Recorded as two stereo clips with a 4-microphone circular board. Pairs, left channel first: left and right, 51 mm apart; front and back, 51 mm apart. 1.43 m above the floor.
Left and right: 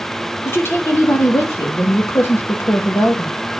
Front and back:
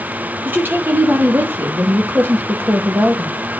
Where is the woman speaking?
130° left, 2.5 m.